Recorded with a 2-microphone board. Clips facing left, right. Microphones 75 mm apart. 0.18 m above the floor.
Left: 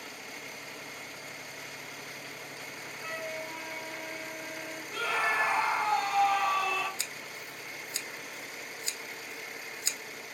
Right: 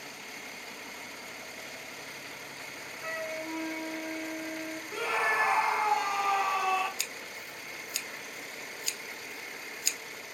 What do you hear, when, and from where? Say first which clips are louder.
3.0 s a flute: right 2 dB; 20° right (ahead or behind), 0.6 m
4.9 s a scream: even; 15° right (ahead or behind), 1.4 m
7.0 s scissors: even; 30° left (ahead or behind), 0.5 m